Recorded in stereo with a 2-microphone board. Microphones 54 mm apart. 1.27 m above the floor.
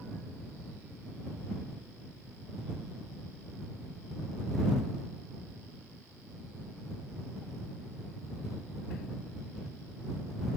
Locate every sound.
Only background noise.